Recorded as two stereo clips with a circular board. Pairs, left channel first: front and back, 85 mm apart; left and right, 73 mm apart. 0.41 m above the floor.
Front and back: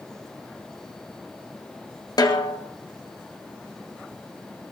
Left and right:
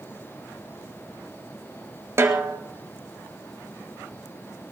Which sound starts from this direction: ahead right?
A snare drum, at 2.2 s.